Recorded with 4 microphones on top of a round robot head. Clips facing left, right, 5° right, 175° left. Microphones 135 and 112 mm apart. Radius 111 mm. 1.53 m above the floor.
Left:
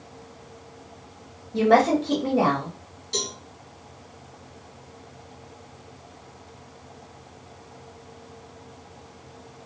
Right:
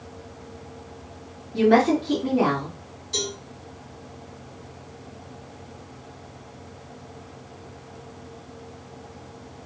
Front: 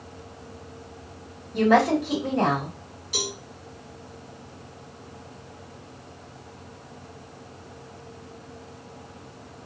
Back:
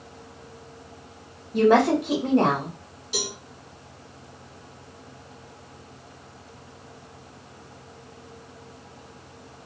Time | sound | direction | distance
1.5 | a woman speaking | 120° left | 1.6 m
3.1 | a cowbell | 110° left | 2 m